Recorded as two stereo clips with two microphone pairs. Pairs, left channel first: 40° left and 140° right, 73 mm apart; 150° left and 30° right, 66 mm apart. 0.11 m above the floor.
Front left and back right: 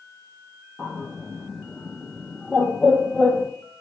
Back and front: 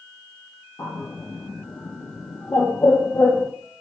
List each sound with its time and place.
0.8 s a bird: 125° left, 0.7 m